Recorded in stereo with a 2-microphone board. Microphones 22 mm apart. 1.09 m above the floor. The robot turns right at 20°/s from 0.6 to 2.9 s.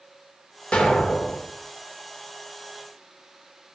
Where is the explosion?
75° left (ahead or behind), 1.3 m; by 1.4 s 70° left (ahead or behind), 1.3 m.